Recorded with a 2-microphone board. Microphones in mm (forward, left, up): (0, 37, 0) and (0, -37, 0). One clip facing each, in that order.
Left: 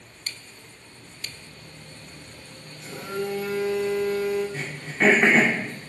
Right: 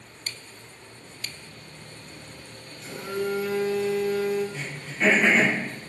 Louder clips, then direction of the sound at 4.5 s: Left 4 dB; 55° left (ahead or behind).